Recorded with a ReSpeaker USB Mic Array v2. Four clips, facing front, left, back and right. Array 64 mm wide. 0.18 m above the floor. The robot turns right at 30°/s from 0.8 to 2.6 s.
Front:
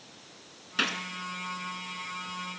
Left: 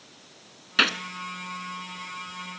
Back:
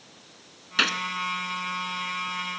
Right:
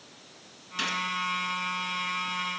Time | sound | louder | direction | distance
0.8 | a gunshot | left 7 dB, back 5 dB | 110° left | 0.7 m